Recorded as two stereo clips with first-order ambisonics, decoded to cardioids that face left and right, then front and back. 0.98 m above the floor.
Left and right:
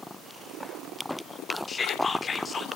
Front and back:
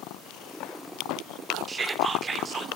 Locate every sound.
1.7 s whispering: 140° left, 0.6 m